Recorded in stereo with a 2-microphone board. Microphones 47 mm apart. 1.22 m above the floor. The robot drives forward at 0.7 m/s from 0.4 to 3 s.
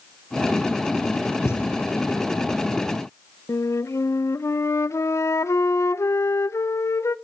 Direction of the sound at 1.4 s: 65° left (ahead or behind).